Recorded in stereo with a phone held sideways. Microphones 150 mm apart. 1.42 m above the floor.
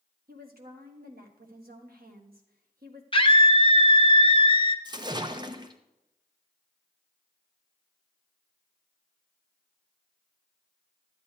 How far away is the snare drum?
No snare drum in this recording.